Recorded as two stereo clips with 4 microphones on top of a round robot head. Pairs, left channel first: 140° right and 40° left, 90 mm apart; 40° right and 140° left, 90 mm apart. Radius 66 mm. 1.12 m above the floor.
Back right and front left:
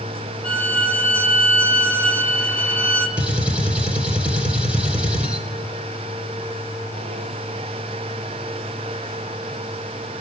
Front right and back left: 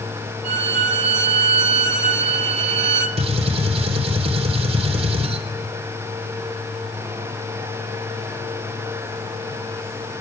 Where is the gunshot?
120° left, 3 m.